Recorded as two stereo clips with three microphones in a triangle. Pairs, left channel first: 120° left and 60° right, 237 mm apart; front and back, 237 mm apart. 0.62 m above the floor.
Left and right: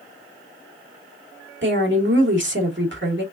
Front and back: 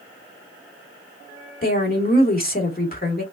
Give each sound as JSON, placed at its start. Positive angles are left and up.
{"t": 1.6, "sound": "a woman speaking", "azimuth_deg": -40, "distance_m": 1.7}